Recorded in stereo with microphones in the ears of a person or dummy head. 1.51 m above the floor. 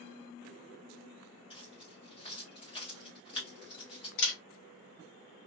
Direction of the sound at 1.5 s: 30° left (ahead or behind).